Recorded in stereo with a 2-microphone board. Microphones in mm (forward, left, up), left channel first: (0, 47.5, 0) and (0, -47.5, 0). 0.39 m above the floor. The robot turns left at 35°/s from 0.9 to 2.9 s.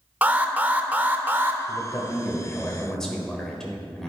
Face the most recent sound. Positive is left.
turn(degrees=10)